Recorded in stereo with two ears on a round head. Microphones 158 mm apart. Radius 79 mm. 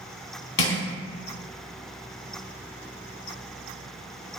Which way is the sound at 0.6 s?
80° left.